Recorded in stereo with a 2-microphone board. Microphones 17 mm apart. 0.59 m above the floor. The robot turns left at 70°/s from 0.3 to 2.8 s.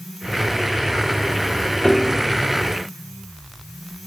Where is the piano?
30° left (ahead or behind), 1.4 m; by 2.2 s 15° left (ahead or behind), 1.4 m.